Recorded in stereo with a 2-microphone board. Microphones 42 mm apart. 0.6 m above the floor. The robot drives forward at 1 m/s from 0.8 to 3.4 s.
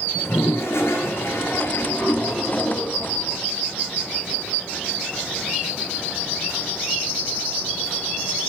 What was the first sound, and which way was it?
A toilet flushing, 70° left (ahead or behind).